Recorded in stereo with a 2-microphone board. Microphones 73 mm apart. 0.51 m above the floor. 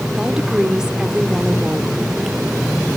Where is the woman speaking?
10° right (ahead or behind), 1.5 m.